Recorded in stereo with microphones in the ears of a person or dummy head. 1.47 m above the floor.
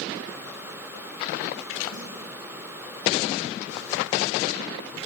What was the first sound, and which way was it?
A snare drum, 45° left (ahead or behind).